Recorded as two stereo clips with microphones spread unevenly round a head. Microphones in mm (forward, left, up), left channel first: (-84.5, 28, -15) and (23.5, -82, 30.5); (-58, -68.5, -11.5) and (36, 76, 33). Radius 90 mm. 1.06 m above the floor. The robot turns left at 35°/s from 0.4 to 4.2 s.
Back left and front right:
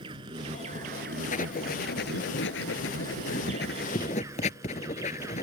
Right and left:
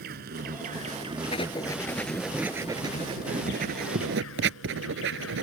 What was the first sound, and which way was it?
An insect, 20° left.